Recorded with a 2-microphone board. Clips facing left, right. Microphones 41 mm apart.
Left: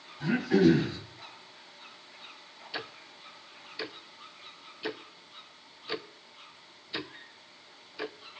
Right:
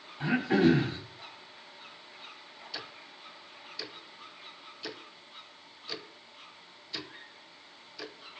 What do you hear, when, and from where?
0.2 s throat clearing: 40° right (ahead or behind), 3 m
2.7 s ticking: 25° left (ahead or behind), 0.5 m